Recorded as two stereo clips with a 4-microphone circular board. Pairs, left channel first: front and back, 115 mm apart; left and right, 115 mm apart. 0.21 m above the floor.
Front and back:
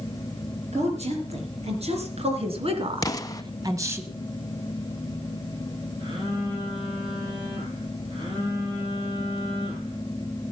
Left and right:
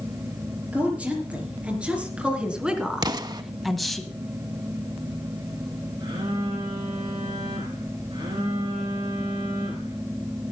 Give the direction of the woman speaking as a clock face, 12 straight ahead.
6 o'clock.